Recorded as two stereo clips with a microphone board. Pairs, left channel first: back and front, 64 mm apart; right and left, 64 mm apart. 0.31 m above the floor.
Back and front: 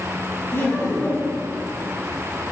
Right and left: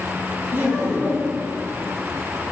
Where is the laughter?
135° left, 2.5 m.